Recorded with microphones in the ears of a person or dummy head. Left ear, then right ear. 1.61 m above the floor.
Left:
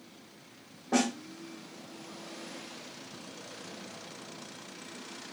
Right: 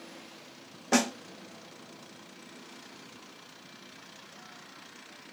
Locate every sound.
0.9 s a snare drum: 65° right (ahead or behind), 0.6 m